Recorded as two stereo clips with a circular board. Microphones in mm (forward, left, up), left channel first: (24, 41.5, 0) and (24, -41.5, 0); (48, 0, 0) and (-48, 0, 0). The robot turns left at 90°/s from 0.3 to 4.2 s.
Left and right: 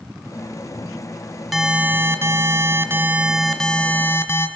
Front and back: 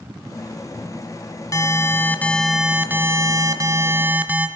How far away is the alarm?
About 2 m.